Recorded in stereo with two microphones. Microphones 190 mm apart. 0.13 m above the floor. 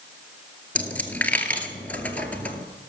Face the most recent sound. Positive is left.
turn(degrees=10)  # may be behind; listen again after turning